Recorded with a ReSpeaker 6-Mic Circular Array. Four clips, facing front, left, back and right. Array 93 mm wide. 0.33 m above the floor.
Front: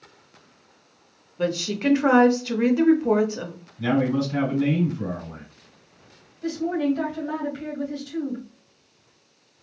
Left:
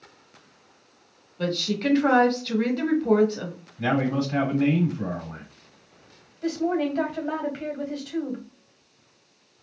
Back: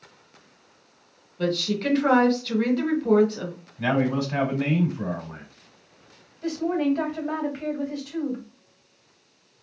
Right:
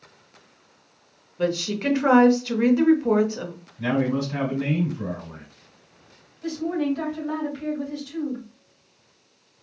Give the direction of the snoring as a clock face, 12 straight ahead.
No snoring in this recording.